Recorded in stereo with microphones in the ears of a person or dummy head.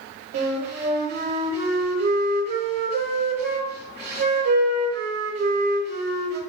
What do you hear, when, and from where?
0.3 s a flute: 50° right (ahead or behind), 1.2 m